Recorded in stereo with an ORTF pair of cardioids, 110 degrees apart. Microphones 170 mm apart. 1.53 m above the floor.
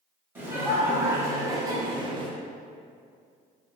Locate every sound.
0.3 s laughter: 10° right, 1.4 m; by 2.3 s 40° right, 0.6 m